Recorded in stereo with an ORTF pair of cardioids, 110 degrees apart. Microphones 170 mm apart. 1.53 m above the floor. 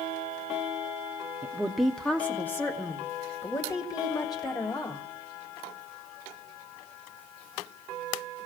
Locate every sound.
1.4 s a woman speaking: 10° right, 0.7 m; by 5.0 s 25° left, 2.5 m